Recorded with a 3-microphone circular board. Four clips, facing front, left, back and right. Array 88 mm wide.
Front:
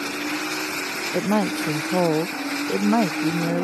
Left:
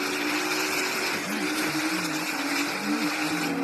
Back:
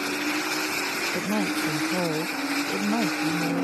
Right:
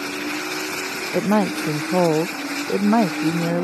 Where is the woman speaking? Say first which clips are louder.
Right 9 dB, front 6 dB; 70° right; by 3.6 s 65° right.